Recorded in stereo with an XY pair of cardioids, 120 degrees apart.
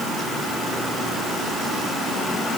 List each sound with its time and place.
Only background noise.